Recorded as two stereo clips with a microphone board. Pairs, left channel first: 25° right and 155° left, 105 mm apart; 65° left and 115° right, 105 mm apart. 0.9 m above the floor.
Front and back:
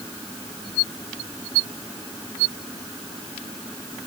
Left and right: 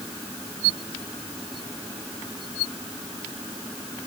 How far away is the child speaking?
I don't hear a child speaking.